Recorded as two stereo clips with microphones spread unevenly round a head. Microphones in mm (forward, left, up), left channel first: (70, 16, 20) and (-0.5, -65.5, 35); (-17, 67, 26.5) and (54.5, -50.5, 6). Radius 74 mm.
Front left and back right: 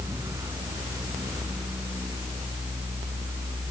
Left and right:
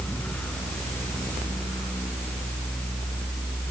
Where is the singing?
No singing in this recording.